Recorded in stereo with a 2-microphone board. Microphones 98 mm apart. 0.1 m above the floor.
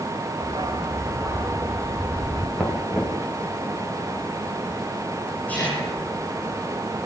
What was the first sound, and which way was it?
A dog barking, 45° right (ahead or behind).